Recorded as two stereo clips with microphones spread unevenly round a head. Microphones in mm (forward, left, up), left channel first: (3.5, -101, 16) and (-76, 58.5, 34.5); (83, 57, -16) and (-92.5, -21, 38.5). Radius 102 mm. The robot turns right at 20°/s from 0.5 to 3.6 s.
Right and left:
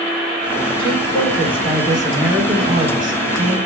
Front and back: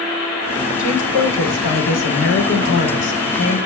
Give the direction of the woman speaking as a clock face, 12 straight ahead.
12 o'clock.